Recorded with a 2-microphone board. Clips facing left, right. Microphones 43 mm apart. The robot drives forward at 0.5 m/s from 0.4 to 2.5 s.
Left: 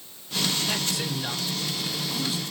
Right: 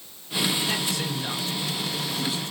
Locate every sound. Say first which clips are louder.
0.7 s a man speaking: right 1 dB; 5° right (ahead or behind), 1.9 m